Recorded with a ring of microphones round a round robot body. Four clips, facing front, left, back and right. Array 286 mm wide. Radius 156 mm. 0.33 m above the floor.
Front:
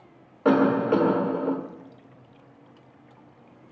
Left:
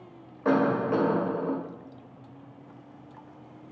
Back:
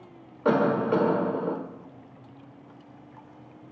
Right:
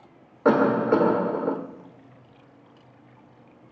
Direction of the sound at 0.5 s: 65° right.